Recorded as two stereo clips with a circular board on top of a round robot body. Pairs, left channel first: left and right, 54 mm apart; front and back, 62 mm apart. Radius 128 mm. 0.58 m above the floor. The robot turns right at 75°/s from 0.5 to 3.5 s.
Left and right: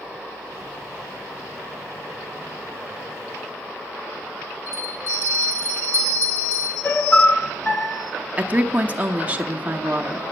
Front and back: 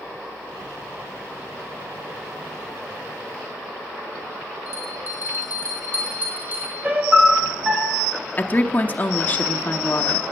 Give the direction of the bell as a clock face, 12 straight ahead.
8 o'clock.